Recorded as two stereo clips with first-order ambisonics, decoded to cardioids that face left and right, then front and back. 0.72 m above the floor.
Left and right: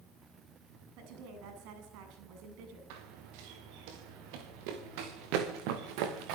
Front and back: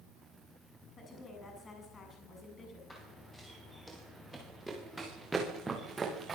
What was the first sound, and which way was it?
A woman speaking, 70° right.